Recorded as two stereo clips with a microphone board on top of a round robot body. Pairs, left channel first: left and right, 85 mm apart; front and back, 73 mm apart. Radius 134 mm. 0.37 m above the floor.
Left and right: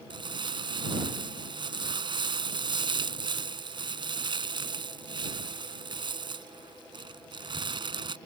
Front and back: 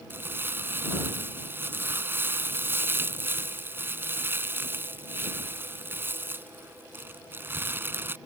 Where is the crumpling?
120° right.